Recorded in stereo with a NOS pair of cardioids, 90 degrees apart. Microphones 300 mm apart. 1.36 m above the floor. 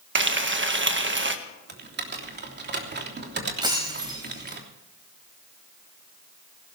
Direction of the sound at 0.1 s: 40° right.